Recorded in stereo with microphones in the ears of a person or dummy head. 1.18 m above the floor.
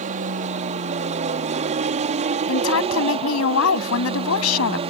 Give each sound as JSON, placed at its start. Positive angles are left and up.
{"t": 0.0, "sound": "an aircraft", "side_deg": -35}
{"t": 2.5, "sound": "a woman speaking", "side_deg": 85}